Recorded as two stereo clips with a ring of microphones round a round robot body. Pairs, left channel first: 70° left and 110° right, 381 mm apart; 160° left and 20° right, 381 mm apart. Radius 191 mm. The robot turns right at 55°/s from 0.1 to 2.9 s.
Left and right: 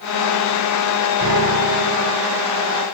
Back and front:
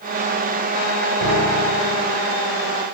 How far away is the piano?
About 4.5 m.